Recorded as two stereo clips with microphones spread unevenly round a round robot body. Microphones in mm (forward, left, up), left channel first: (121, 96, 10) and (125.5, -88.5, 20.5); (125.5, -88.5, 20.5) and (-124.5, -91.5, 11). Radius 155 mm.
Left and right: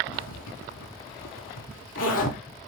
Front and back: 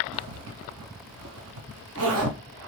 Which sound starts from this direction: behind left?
A zipper, at 0.1 s.